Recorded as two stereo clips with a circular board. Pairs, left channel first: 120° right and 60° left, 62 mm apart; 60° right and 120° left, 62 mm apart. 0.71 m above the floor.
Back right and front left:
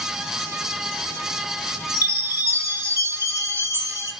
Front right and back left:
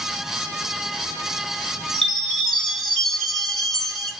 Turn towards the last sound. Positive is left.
turn(degrees=25)